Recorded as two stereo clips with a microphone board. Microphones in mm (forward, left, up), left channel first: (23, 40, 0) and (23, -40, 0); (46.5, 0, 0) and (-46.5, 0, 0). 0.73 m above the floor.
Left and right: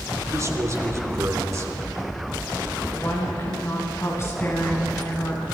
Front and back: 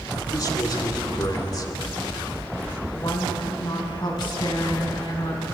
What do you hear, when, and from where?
0.3 s a man speaking: 40° right, 2.5 m
2.9 s a woman speaking: 35° left, 5 m